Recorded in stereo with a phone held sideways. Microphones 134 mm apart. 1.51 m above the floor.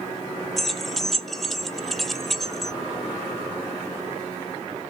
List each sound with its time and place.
0.6 s keys jangling: centre (ahead or behind), 0.5 m